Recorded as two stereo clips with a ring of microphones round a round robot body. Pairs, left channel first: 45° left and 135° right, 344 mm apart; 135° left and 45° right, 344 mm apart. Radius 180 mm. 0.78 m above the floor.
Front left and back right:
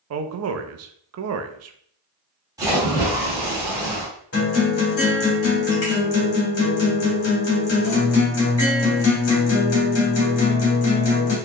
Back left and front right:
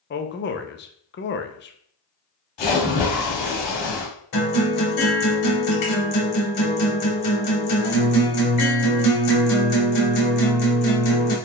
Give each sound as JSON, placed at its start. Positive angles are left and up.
{"t": 0.1, "sound": "a man speaking", "azimuth_deg": -170, "distance_m": 0.6}
{"t": 2.6, "sound": "a splash", "azimuth_deg": 145, "distance_m": 1.9}
{"t": 4.3, "sound": "a guitar", "azimuth_deg": 100, "distance_m": 2.0}